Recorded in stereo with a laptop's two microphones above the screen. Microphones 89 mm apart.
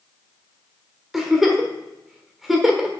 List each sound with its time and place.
1.1 s a giggle: 5° right (ahead or behind), 1.2 m